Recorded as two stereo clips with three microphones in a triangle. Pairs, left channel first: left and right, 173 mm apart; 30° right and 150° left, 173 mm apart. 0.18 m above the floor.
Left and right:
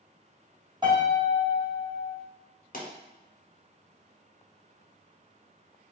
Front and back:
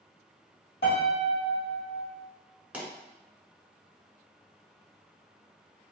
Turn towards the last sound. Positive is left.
turn(degrees=70)